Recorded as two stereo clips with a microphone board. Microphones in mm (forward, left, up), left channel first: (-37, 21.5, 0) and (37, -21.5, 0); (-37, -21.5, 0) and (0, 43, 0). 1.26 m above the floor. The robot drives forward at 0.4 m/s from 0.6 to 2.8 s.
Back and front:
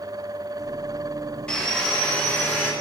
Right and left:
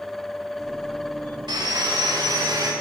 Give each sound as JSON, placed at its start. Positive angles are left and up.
{"t": 1.5, "sound": "sawing", "azimuth_deg": 70, "distance_m": 2.5}